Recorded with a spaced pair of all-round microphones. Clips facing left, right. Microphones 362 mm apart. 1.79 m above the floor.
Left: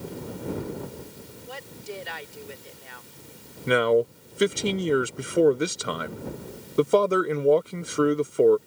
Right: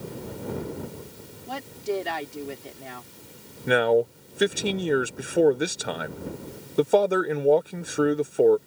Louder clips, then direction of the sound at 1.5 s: Right 10 dB; 80° right.